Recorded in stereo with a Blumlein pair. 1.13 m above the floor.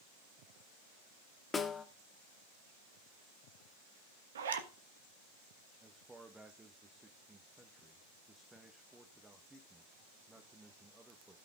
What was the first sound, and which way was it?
A snare drum, 15° left.